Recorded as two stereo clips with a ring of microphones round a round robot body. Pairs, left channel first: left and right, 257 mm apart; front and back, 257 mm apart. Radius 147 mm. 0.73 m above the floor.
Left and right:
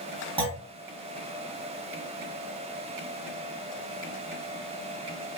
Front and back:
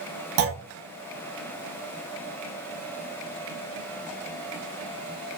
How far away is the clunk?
About 0.7 m.